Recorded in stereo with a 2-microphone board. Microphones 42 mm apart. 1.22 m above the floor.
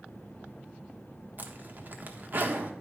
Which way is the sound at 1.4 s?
50° right (ahead or behind).